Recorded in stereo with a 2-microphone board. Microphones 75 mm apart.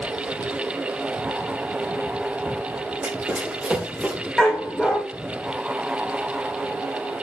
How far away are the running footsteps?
About 5.5 m.